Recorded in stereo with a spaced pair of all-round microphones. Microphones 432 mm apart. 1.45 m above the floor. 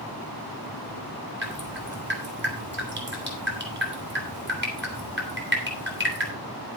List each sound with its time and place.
1.4 s dripping: 25° right (ahead or behind), 3 m